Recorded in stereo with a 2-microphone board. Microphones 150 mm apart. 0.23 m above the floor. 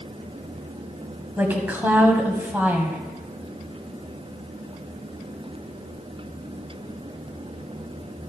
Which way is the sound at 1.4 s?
10° right (ahead or behind).